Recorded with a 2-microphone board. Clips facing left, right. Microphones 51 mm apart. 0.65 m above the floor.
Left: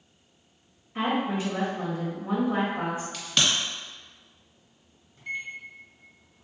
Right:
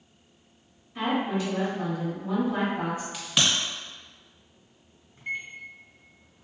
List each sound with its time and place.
0.9 s a woman speaking: 30° left (ahead or behind), 0.8 m
3.1 s a crack: 10° right (ahead or behind), 1.0 m
5.2 s a microwave: 25° right (ahead or behind), 0.7 m